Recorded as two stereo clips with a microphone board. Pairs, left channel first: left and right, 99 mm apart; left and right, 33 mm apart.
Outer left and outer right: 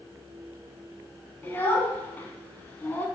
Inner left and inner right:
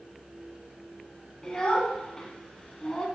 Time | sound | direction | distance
1.4 | a child speaking | 20° left (ahead or behind) | 0.8 m